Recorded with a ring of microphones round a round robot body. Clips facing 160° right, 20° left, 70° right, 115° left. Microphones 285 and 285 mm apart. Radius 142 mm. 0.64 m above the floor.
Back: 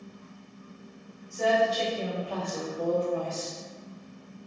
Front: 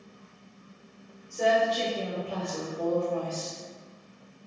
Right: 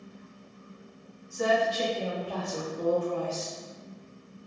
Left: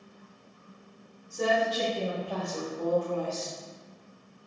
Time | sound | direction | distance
1.3 | a woman speaking | 75° left | 1.6 m